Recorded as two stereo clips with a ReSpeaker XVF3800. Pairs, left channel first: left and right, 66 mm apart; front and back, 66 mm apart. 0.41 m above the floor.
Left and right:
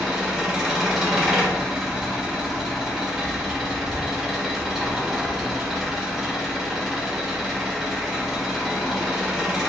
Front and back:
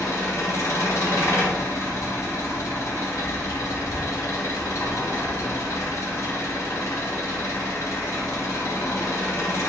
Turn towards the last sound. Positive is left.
turn(degrees=-10)